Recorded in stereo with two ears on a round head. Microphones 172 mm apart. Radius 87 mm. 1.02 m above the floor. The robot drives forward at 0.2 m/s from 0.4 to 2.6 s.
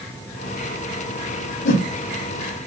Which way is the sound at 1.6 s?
45° left (ahead or behind).